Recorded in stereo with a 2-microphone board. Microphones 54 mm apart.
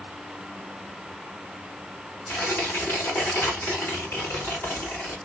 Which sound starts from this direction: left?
Tearing paper, at 2.3 s.